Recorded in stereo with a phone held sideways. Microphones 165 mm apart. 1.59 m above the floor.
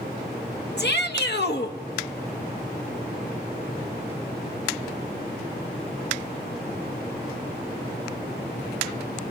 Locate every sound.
0.8 s a shout: 75° left (ahead or behind), 1.7 m